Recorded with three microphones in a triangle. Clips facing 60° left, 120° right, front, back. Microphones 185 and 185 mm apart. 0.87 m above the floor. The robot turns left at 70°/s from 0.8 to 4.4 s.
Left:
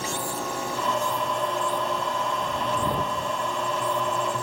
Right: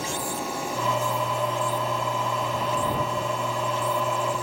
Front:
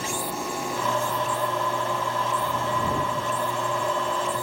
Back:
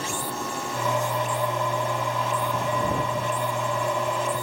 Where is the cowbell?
I don't hear a cowbell.